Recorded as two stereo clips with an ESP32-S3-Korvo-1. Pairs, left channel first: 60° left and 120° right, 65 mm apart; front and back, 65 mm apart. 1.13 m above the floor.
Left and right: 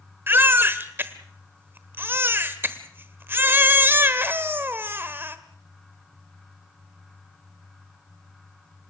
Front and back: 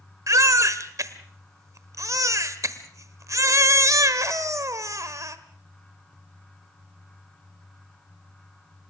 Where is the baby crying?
170° right, 1.2 m.